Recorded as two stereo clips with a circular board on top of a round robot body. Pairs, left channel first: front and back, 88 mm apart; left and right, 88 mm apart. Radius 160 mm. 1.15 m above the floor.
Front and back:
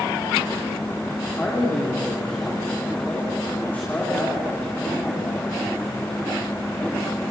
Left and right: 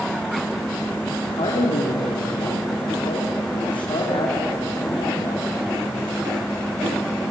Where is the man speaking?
70° left, 3.5 m.